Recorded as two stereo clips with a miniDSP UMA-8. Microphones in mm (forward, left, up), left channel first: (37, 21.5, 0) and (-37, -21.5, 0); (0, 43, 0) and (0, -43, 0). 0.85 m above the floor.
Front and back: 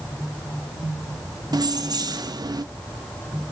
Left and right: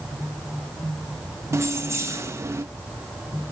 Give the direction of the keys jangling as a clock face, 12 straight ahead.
5 o'clock.